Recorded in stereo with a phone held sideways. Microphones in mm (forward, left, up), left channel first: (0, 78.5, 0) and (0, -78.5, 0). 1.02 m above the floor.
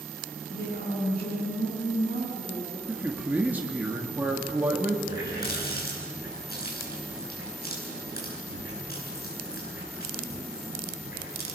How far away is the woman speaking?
About 9.5 m.